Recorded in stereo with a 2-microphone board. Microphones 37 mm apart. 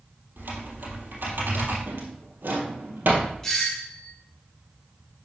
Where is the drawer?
70° right (ahead or behind), 2.5 m.